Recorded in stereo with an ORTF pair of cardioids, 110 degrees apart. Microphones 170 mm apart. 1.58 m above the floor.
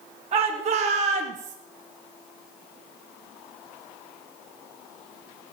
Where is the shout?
40° right, 2.5 m; by 1.6 s 50° right, 1.1 m.